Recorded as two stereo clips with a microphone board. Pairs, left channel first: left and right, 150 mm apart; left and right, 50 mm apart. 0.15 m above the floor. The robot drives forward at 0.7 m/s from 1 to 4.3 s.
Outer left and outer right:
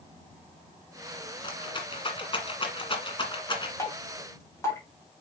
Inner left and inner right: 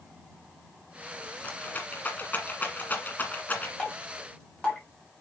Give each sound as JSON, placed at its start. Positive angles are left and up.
{"t": 1.4, "sound": "a rattle", "side_deg": 30, "distance_m": 1.7}
{"t": 3.8, "sound": "dripping", "side_deg": 20, "distance_m": 4.5}